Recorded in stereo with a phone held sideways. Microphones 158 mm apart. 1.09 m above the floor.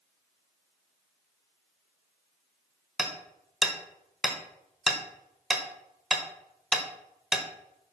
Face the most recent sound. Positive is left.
turn(degrees=-5)  # may be behind; listen again after turning